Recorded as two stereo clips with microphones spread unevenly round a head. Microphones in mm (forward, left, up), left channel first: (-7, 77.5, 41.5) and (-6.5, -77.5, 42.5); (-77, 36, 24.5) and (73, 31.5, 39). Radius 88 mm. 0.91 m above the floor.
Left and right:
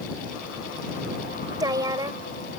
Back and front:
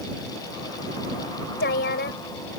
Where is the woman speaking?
155° right.